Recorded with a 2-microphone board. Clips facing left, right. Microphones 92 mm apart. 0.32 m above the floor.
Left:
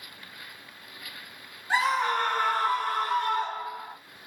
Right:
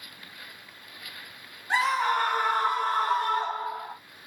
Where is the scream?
5° left (ahead or behind), 1.7 m; by 4.0 s 40° right (ahead or behind), 1.9 m.